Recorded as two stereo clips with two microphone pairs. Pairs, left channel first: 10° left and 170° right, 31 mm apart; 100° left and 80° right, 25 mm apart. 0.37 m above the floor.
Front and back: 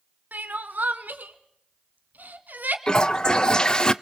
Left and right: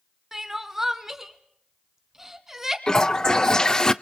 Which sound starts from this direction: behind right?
Crying, at 0.3 s.